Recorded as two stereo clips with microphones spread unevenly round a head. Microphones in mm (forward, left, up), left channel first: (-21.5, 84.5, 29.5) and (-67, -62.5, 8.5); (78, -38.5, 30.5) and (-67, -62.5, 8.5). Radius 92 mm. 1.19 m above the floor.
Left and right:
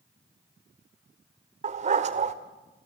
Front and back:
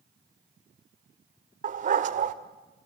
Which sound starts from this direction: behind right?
A dog barking, at 1.6 s.